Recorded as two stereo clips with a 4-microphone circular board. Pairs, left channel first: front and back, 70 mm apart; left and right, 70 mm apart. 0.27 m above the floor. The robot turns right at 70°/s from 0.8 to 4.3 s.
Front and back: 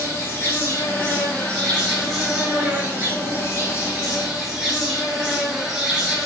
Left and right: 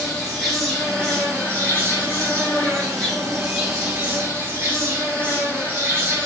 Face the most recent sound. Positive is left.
turn(degrees=-110)